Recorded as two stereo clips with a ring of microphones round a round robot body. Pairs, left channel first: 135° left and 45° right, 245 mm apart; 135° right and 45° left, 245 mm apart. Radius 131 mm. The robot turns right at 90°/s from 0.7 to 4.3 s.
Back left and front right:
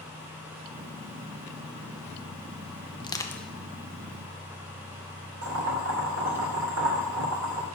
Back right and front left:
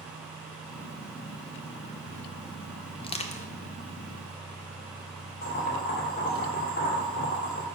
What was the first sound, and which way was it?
Crushing, straight behind.